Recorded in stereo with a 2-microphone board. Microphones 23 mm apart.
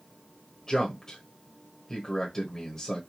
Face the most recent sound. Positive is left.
turn(degrees=20)  # may be behind; listen again after turning